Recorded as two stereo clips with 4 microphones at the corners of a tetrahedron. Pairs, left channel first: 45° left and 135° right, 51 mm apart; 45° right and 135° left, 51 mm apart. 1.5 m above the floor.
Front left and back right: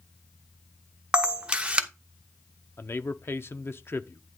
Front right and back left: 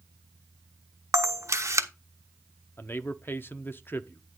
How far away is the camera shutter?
About 1.0 m.